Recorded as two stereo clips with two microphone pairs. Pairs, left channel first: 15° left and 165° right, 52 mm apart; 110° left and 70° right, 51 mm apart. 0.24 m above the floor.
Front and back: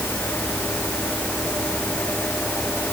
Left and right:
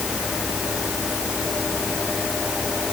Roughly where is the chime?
No chime in this recording.